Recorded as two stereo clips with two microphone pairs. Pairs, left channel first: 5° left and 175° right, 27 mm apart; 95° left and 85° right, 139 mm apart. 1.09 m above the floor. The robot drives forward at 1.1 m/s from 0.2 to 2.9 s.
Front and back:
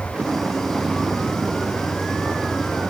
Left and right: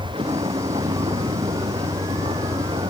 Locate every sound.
0.0 s a vehicle: 135° right